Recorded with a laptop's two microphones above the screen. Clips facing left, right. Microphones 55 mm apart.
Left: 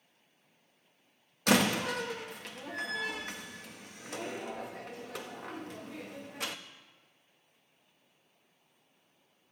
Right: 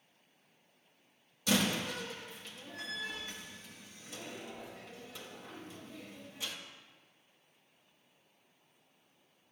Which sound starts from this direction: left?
A door slam, at 1.5 s.